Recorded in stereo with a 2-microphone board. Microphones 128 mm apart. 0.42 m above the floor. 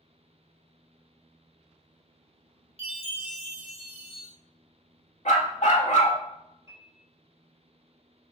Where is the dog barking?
75° left (ahead or behind), 0.8 m.